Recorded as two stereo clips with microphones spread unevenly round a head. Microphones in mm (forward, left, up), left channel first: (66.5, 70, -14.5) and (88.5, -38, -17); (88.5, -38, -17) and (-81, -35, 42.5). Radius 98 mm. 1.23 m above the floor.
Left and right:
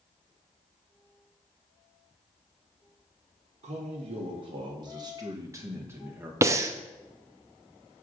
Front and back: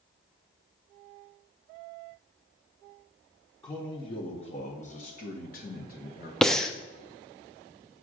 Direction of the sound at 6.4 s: 50° right.